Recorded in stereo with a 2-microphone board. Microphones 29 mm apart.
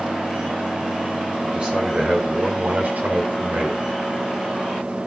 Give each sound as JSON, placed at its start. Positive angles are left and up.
{"t": 1.4, "sound": "a man speaking", "side_deg": -30, "distance_m": 3.5}